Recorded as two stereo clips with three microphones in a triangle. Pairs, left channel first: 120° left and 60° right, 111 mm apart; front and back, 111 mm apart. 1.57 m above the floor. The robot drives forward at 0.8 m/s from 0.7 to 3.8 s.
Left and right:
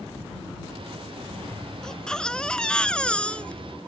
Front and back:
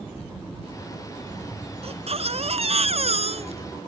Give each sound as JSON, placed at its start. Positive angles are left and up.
{"t": 1.8, "sound": "a baby crying", "azimuth_deg": -155}